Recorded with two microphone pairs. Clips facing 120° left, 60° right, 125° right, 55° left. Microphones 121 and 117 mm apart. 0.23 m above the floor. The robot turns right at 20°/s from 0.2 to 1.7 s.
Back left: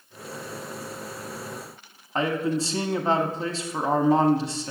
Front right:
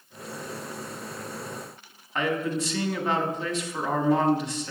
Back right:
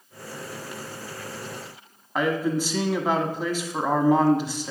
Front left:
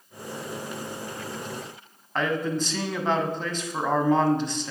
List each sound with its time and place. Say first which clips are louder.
2.1 s a man speaking: back left 2 dB, back right 2 dB; 160° left, 1.2 m